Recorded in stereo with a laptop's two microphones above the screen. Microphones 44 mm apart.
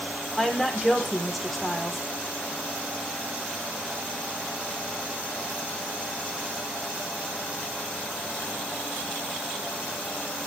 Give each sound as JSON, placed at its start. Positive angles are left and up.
{"t": 0.4, "sound": "a woman speaking", "side_deg": 0, "distance_m": 4.0}